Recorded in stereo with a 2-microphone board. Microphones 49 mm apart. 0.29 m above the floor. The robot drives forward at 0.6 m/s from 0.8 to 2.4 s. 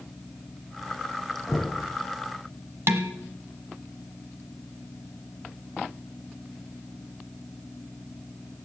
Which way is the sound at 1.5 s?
Centre (ahead or behind).